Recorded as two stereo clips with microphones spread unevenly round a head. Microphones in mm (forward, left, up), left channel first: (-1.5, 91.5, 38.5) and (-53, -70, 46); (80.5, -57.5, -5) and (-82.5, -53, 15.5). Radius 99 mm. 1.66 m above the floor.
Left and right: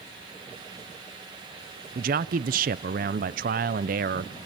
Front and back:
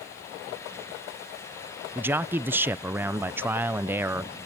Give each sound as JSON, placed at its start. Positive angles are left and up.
{"t": 1.9, "sound": "a man speaking", "azimuth_deg": -115, "distance_m": 0.5}